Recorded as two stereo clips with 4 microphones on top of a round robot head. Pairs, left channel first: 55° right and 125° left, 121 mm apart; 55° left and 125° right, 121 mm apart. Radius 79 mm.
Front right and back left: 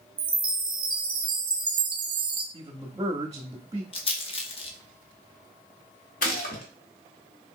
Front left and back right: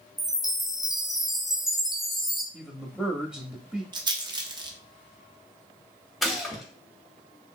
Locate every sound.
0.2 s a chime: 150° left, 0.7 m
2.5 s a man speaking: 160° left, 0.7 m
3.9 s a rattle: 80° right, 0.7 m
6.2 s a gunshot: 35° right, 0.8 m